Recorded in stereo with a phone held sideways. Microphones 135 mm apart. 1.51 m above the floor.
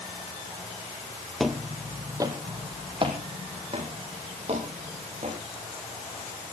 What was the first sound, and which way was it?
Footsteps, centre (ahead or behind).